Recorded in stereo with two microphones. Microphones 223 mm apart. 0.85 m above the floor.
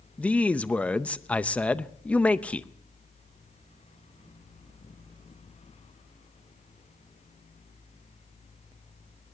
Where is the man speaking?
5° left (ahead or behind), 0.6 m.